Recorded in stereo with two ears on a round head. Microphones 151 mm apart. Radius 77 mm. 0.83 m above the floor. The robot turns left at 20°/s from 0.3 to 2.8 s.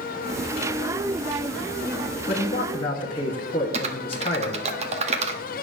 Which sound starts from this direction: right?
Typing on a keyboard, at 3.7 s.